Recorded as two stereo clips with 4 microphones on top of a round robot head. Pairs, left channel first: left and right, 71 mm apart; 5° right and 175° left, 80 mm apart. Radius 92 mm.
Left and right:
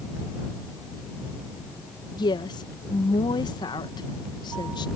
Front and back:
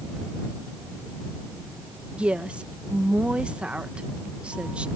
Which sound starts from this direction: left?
A woman speaking, at 2.2 s.